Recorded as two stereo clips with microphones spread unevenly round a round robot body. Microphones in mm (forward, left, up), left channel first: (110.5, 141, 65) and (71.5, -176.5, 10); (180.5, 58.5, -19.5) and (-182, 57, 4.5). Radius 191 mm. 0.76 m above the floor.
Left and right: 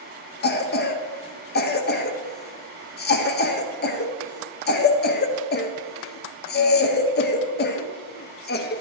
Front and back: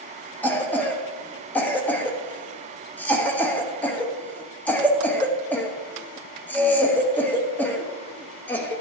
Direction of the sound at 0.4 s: 65° left.